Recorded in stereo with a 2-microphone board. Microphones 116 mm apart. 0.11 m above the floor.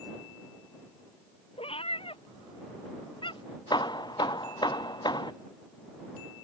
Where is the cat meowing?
55° left (ahead or behind); by 3.6 s 45° left (ahead or behind).